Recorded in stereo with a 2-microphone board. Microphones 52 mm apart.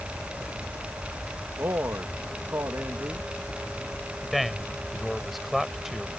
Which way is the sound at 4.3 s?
Centre (ahead or behind).